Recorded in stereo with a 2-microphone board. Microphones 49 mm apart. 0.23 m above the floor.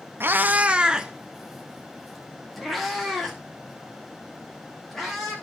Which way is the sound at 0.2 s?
50° right (ahead or behind).